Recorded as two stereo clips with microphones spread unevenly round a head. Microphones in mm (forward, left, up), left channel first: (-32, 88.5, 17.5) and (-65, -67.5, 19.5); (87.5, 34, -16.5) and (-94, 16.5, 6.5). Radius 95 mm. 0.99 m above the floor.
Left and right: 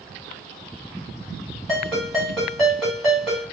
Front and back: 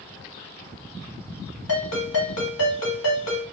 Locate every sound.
1.7 s a ringtone: 10° right, 2 m